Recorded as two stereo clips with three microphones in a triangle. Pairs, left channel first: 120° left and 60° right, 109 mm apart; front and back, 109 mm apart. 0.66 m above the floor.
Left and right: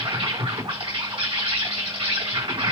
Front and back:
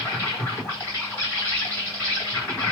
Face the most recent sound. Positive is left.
turn(degrees=-65)